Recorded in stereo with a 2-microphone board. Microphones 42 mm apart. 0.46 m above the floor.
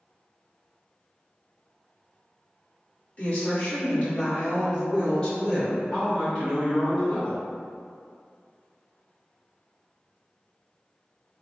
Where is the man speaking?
25° left (ahead or behind), 1.1 m.